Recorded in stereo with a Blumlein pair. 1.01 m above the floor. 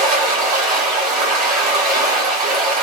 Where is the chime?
No chime in this recording.